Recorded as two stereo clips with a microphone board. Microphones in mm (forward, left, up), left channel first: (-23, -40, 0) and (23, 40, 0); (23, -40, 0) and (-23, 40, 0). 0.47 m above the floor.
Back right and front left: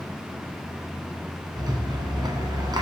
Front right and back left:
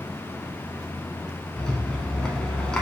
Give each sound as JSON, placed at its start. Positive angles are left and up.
{"t": 1.6, "sound": "a rattle", "azimuth_deg": 20, "distance_m": 0.8}